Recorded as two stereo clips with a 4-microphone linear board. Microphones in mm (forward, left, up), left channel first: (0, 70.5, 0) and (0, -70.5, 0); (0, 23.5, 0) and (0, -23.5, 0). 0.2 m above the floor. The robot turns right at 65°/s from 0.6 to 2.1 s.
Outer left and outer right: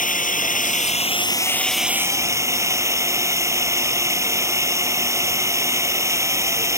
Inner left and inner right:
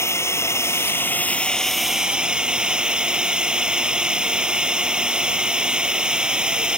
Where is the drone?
105° left; by 6.8 s 160° right.